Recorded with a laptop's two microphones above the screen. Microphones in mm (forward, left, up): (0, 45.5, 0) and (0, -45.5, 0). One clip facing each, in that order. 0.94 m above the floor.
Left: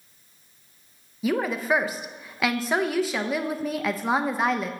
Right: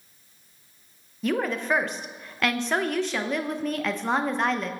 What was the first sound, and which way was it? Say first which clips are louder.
A woman speaking: left 1 dB; 5° left (ahead or behind).